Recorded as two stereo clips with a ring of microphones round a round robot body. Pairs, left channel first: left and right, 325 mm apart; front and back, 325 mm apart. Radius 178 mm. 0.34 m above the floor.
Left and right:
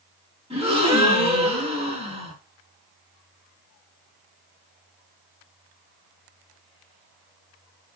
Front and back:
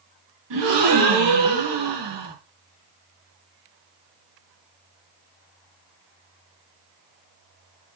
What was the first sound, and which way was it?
A gasp, 160° right.